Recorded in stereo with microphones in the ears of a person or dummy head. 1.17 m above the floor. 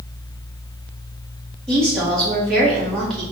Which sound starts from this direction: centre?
A woman speaking, at 1.7 s.